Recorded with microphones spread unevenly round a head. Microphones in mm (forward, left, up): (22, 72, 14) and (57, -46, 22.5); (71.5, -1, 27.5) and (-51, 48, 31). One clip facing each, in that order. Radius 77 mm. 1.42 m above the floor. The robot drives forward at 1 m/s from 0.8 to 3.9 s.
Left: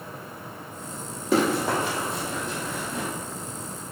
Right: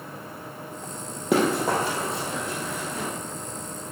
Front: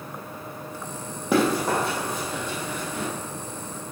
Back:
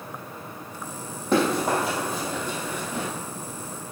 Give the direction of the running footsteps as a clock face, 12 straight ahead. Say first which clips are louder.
Right 1 dB, even; 3 o'clock.